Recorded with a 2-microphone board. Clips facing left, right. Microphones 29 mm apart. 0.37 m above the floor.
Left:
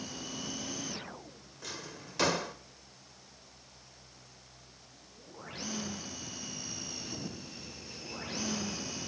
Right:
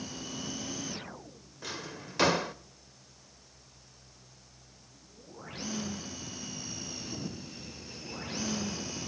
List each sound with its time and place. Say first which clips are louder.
1.6 s a drawer: right 3 dB; 15° right (ahead or behind), 0.6 m